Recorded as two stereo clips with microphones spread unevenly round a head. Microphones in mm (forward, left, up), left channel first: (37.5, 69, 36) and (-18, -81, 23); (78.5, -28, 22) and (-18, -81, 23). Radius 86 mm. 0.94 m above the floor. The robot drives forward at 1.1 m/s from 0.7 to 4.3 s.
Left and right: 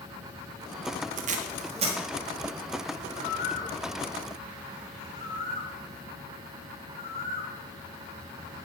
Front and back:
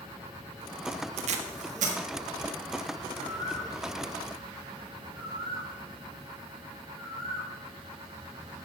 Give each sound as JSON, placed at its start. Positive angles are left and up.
{"t": 1.2, "sound": "tape being pulled", "azimuth_deg": -145, "distance_m": 0.8}
{"t": 3.2, "sound": "a bird", "azimuth_deg": 90, "distance_m": 2.0}